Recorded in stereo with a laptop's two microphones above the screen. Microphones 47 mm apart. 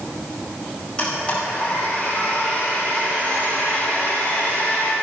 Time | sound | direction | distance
1.0 | a blender | 25° left (ahead or behind) | 5 m